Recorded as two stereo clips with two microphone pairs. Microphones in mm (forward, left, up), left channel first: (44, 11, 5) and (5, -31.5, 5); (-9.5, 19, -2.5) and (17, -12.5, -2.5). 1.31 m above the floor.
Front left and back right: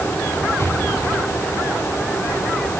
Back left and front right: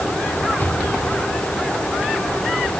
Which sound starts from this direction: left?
An explosion, at 0.6 s.